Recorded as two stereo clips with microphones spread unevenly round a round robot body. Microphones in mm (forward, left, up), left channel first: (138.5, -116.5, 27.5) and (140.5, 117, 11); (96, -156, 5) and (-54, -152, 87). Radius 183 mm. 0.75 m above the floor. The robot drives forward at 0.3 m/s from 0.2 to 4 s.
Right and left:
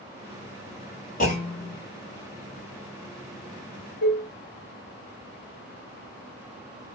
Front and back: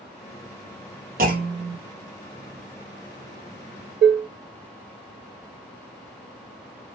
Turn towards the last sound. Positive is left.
turn(degrees=-145)